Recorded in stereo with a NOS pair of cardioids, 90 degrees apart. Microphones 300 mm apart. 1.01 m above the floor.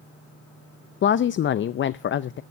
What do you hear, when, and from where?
1.0 s a woman speaking: 40° left, 0.6 m